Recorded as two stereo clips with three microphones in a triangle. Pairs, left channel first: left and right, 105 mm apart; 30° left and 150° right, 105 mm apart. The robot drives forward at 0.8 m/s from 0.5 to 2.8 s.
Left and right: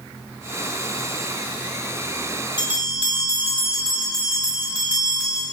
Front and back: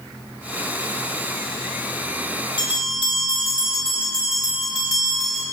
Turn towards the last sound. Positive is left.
turn(degrees=55)